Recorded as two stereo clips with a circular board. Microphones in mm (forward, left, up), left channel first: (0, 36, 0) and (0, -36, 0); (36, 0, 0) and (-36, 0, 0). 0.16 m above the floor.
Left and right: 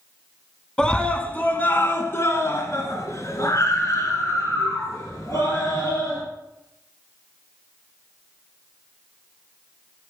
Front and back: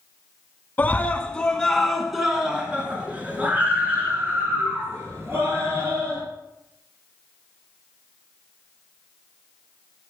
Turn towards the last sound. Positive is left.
turn(degrees=130)